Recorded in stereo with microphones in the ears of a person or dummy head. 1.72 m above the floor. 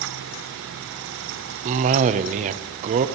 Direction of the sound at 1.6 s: 35° right (ahead or behind).